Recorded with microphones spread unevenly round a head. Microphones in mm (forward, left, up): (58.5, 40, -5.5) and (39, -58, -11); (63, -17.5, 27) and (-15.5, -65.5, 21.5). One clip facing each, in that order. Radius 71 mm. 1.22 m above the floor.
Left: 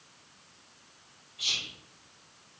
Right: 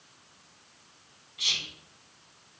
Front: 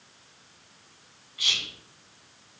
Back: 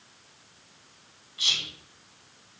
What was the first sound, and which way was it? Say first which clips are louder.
Whispering: right 2 dB, front 1 dB; 90° right.